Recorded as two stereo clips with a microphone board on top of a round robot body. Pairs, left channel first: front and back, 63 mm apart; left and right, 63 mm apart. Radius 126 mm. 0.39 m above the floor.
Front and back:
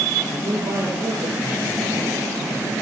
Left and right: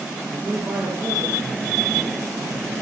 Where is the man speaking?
160° right, 7.5 m.